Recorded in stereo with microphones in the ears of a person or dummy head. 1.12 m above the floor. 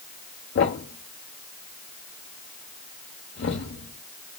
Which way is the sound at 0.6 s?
40° left (ahead or behind).